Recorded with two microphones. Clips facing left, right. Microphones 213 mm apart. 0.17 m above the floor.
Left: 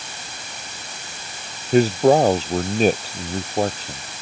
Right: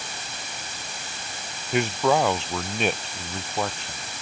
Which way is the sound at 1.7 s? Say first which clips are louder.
Left 8 dB; 35° left (ahead or behind).